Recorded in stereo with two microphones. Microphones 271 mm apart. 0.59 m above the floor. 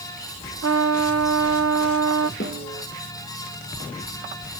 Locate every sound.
0.6 s a trumpet: 65° right (ahead or behind), 0.6 m
2.4 s a snare drum: 45° left (ahead or behind), 6.5 m